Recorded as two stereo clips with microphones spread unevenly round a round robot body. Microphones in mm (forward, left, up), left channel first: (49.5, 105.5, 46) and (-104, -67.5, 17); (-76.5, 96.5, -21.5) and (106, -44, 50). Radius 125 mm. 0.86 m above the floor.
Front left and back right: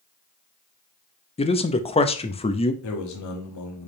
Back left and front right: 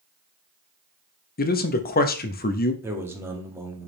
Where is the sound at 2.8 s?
50° left, 1.7 m.